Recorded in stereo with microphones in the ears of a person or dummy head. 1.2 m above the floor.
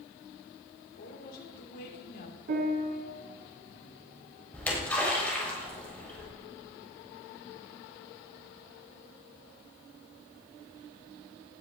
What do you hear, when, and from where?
1.0 s a woman speaking: 55° left (ahead or behind), 4 m
2.5 s a piano: 55° right (ahead or behind), 2.5 m
4.5 s a splash: 5° left (ahead or behind), 6 m